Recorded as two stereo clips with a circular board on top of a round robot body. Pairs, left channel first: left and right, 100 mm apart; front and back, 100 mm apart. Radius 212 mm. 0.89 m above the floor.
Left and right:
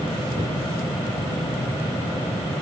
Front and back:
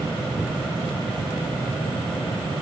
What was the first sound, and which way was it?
Only background noise.